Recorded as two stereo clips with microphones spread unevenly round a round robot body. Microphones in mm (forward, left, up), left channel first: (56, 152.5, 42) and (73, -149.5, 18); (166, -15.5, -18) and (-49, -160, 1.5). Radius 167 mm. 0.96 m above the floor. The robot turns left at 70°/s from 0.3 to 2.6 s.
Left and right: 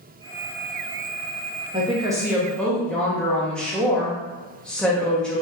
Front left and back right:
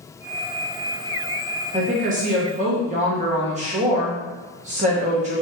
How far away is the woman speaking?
About 0.8 m.